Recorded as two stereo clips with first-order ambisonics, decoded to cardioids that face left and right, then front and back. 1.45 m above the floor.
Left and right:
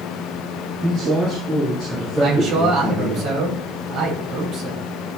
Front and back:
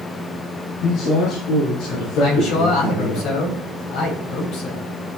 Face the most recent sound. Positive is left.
turn(degrees=-40)